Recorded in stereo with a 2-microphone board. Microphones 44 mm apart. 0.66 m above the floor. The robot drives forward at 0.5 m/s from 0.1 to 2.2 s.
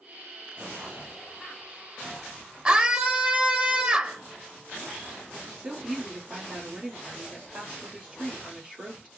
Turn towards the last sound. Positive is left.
turn(degrees=-15)  # may be behind; listen again after turning